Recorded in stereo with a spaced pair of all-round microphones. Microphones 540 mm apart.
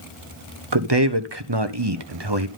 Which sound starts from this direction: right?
A man speaking, at 0.7 s.